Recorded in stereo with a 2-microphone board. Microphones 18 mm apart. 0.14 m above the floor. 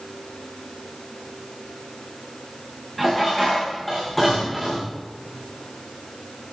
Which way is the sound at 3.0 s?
10° left (ahead or behind).